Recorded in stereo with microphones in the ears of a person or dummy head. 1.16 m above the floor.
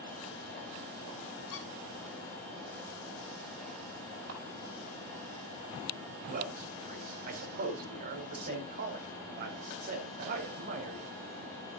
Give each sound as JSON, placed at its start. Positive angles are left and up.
{"t": 1.5, "sound": "a squeak", "side_deg": 75, "distance_m": 1.5}
{"t": 4.3, "sound": "a camera shutter", "side_deg": -75, "distance_m": 4.5}
{"t": 6.3, "sound": "a man speaking", "side_deg": -45, "distance_m": 4.0}